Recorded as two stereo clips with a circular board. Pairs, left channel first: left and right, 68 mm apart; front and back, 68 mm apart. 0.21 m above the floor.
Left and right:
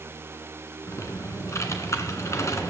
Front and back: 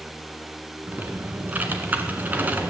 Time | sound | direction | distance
0.9 | typing on a keyboard | 120° left | 1.8 m